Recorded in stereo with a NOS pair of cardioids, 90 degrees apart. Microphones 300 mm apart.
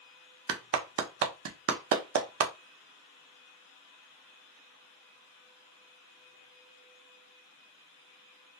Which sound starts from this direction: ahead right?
A clap, at 0.5 s.